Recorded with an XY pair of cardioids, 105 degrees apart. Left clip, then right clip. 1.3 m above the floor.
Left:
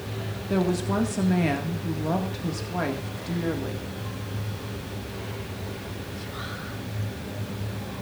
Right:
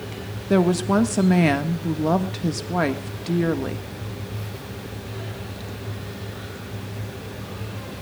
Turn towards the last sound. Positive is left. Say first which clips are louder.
# right 6 dB
turn(degrees=-45)